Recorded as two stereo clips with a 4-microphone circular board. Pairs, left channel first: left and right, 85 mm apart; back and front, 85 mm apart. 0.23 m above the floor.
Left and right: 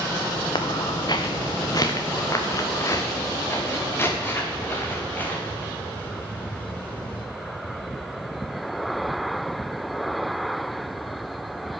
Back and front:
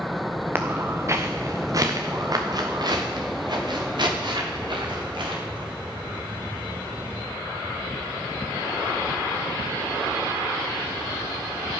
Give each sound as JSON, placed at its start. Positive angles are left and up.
{"t": 0.6, "sound": "footsteps", "azimuth_deg": 65, "distance_m": 1.5}